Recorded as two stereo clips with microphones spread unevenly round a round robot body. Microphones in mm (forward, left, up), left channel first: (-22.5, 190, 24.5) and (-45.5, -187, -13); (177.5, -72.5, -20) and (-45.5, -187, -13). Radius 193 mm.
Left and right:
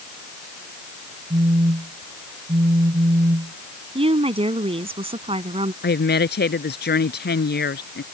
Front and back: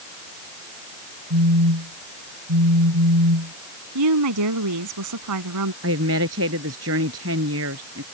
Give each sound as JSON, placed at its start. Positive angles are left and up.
{"t": 1.3, "sound": "a phone buzzing", "azimuth_deg": -170}
{"t": 4.0, "sound": "a woman speaking", "azimuth_deg": -170}
{"t": 5.8, "sound": "a woman speaking", "azimuth_deg": 150}